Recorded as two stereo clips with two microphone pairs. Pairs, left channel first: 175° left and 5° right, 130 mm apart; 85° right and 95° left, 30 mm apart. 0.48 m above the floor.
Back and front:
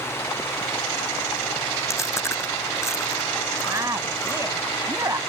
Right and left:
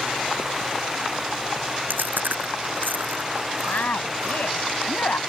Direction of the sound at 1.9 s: 105° left.